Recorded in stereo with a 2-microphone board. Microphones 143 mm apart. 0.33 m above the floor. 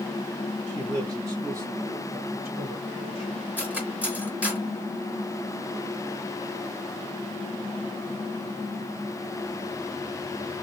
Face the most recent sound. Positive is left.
turn(degrees=-10)  # may be behind; listen again after turning